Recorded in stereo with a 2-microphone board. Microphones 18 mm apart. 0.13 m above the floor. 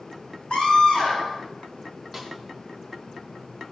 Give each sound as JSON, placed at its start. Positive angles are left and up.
{"t": 0.5, "sound": "a scream", "side_deg": 60, "distance_m": 9.0}
{"t": 2.1, "sound": "a snare drum", "side_deg": 0, "distance_m": 5.0}